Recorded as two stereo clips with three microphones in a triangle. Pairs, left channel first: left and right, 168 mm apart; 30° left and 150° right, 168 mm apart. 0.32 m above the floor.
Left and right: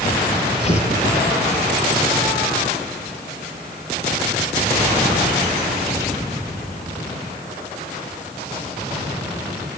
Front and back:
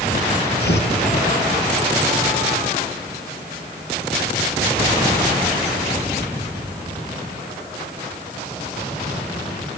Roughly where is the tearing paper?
Ahead left.